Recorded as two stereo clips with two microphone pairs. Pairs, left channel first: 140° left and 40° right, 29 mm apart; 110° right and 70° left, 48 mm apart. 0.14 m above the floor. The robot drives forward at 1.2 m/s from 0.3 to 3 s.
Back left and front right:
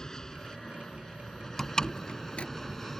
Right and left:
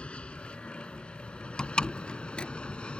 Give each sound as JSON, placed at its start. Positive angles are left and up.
{"t": 0.0, "sound": "an aircraft", "azimuth_deg": -160}
{"t": 1.6, "sound": "a door slam", "azimuth_deg": -155}